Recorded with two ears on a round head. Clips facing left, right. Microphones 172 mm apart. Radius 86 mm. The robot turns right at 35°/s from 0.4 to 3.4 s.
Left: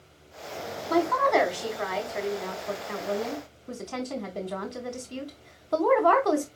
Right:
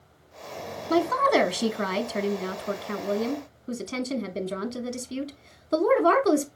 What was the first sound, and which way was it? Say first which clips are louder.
A woman speaking: right 1 dB; 125° right.